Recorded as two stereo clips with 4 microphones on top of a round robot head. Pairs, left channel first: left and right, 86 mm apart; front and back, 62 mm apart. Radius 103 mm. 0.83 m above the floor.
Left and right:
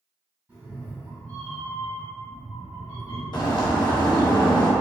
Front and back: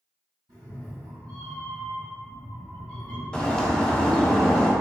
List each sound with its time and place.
0.5 s a cat meowing: 155° right, 1.8 m
3.3 s a bird: 75° left, 0.7 m